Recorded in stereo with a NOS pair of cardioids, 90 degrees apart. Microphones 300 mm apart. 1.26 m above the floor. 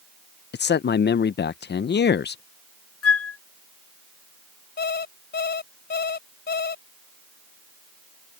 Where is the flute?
50° left.